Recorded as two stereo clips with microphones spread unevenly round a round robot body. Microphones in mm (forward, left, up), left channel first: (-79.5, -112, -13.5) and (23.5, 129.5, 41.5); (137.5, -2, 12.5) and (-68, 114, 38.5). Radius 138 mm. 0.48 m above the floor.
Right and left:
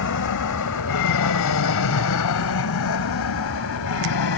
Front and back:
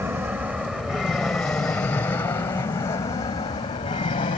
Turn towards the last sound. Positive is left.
turn(degrees=-95)